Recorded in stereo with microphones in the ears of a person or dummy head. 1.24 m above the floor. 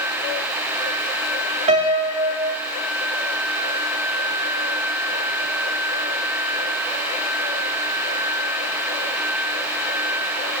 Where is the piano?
35° right (ahead or behind), 2 m.